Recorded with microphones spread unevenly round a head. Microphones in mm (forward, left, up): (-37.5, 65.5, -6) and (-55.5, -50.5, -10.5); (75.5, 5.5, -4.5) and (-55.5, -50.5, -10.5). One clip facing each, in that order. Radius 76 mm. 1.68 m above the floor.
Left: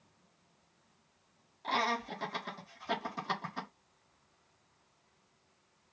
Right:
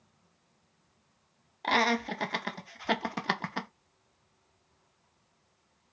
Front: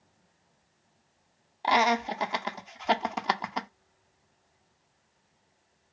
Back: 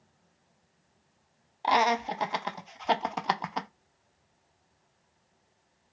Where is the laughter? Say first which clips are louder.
Right 6 dB, even; 65° right, 0.5 m.